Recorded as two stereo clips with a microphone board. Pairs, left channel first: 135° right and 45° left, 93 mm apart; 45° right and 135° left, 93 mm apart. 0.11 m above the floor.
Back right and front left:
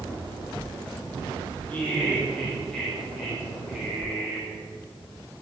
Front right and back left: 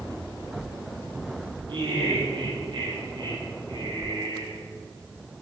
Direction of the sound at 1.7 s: 155° left.